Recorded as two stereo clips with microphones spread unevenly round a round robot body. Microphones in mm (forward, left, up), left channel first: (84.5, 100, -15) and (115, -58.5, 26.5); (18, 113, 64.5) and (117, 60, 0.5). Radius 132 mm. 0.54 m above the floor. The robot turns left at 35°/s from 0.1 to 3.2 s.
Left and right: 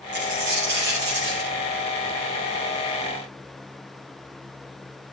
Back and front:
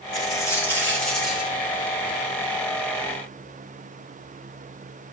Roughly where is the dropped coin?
Right.